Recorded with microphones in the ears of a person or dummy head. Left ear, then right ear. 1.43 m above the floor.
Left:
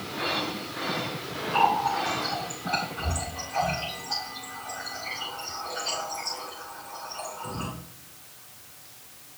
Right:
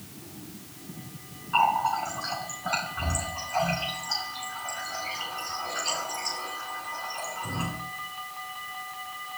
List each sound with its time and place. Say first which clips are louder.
1.5 s a running tap: even; 45° right (ahead or behind), 5.5 m